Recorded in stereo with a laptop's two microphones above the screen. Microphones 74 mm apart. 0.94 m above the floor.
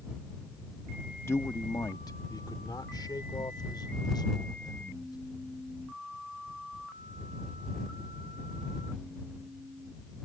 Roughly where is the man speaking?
Left.